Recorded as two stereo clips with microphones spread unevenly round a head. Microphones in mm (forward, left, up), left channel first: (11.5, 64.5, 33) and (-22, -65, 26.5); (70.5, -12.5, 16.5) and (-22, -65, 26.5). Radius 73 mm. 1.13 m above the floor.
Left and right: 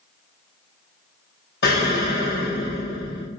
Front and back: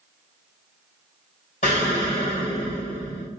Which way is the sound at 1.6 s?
75° left.